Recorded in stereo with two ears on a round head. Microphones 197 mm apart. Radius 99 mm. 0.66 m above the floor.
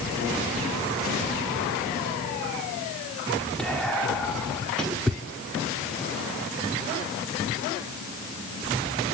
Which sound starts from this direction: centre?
Whispering, at 3.6 s.